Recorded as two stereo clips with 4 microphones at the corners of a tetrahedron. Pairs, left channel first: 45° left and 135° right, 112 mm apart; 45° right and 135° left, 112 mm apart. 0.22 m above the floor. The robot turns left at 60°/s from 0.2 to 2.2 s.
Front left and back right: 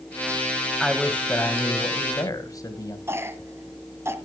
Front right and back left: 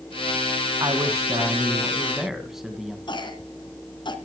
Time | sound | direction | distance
0.8 | a man speaking | 135° left | 1.7 m
3.1 | a cough | 75° right | 1.7 m